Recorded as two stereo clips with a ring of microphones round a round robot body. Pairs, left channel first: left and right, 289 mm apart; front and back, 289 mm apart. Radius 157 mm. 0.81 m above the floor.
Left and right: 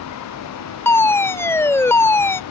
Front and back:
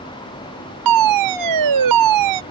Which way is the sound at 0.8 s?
170° left.